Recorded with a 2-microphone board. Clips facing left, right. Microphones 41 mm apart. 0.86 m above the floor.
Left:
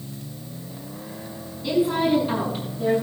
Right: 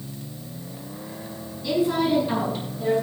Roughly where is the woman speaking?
Centre.